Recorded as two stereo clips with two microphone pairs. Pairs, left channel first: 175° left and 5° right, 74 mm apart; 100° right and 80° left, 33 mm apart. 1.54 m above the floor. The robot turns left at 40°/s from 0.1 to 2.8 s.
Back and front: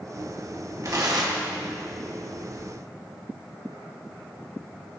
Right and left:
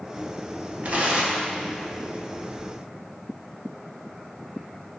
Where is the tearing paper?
40° left, 0.9 m; by 1.5 s 10° left, 0.9 m.